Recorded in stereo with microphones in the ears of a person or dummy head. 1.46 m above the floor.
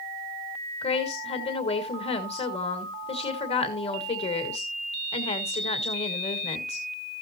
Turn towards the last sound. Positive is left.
turn(degrees=25)  # may be behind; listen again after turning